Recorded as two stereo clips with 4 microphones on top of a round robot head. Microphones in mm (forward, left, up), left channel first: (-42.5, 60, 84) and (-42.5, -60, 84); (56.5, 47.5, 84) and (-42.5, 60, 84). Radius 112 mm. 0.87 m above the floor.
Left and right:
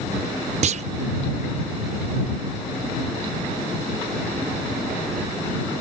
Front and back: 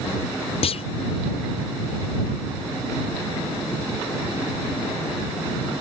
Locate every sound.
0.6 s a clunk: 50° right